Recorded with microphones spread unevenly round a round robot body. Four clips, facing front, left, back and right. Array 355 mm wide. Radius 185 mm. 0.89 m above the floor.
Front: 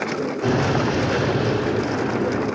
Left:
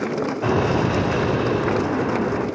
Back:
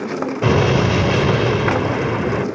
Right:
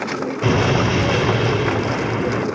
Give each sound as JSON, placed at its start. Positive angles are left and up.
{"t": 0.4, "sound": "an explosion", "azimuth_deg": -160, "distance_m": 3.0}